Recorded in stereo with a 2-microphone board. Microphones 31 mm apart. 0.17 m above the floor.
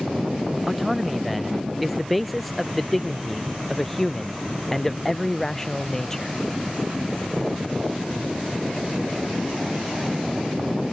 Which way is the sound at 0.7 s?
5° right (ahead or behind).